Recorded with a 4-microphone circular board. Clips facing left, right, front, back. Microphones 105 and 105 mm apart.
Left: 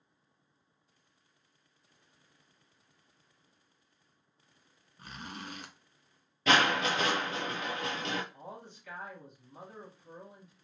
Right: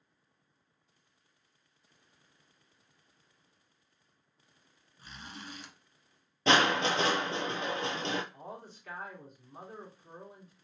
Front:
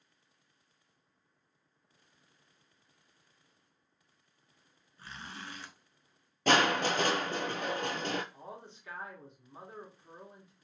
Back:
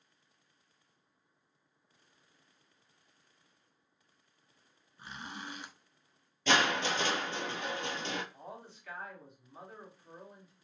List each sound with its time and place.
5.0 s a zipper: 110° left, 0.5 m
6.5 s crushing: 35° right, 0.7 m
8.3 s a man speaking: 60° right, 2.0 m